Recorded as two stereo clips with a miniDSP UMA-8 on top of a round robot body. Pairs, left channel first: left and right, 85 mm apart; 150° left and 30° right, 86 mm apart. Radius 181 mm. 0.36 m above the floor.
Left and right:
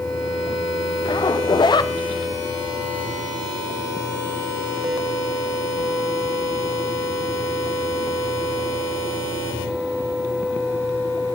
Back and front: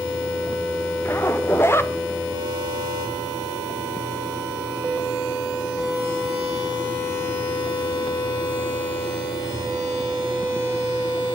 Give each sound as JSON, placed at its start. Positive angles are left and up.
{"t": 1.1, "sound": "a zipper", "azimuth_deg": 95, "distance_m": 1.6}